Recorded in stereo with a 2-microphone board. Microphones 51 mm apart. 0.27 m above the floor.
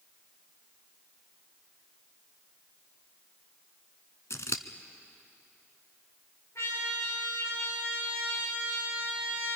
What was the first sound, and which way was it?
Scissors, 75° left (ahead or behind).